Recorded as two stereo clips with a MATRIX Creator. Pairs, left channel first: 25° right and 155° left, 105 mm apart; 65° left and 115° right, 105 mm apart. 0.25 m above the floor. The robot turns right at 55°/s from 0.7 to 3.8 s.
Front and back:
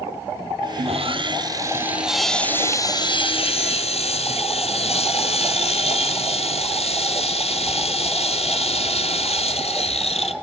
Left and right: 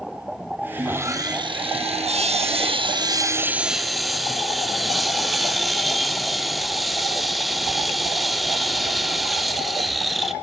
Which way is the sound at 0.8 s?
170° left.